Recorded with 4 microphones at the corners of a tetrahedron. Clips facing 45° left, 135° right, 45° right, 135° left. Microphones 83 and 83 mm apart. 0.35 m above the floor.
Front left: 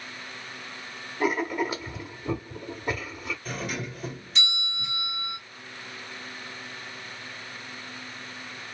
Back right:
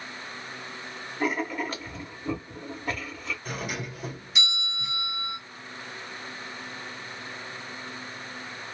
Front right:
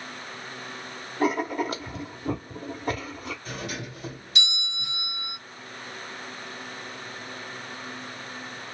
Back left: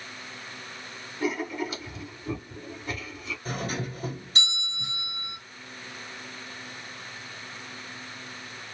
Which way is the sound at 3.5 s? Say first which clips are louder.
Front left 1 dB, back left 3 dB; 145° left.